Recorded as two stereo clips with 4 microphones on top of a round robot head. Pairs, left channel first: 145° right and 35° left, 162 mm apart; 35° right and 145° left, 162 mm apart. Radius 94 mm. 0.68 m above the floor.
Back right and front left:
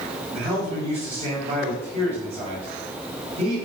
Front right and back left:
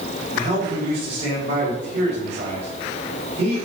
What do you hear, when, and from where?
0.3 s a man speaking: 85° left, 4.5 m